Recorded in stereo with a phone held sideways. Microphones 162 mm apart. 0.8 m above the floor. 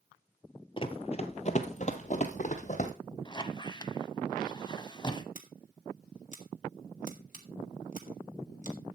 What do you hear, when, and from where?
0.8 s running footsteps: 35° left (ahead or behind), 0.9 m; by 2.9 s 50° left (ahead or behind), 1.7 m
3.2 s a squeak: 30° left (ahead or behind), 0.8 m
5.3 s scissors: 55° left (ahead or behind), 1.8 m